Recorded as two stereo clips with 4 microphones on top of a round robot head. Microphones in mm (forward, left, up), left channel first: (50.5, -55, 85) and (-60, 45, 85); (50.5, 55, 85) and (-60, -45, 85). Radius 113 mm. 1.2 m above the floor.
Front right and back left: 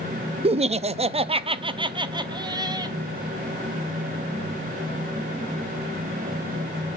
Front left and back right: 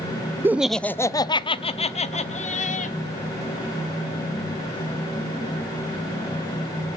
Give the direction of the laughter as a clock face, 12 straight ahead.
7 o'clock.